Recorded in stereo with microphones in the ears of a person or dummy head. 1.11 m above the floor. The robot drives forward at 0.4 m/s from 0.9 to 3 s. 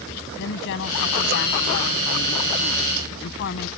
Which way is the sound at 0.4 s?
65° left (ahead or behind).